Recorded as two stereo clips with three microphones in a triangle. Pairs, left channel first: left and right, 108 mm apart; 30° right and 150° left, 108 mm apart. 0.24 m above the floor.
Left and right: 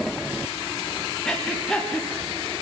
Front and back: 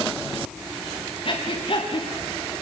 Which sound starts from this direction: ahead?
Breathing, at 1.2 s.